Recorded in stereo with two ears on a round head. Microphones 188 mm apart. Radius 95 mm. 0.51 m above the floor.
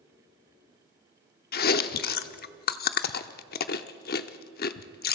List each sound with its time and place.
1.5 s chewing: 45° left (ahead or behind), 0.8 m